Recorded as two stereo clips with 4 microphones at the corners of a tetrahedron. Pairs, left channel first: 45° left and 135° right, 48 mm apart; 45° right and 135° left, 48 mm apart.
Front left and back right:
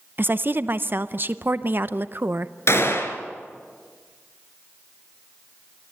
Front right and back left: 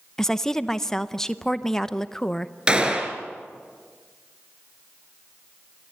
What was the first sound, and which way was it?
A woman speaking, 120° right.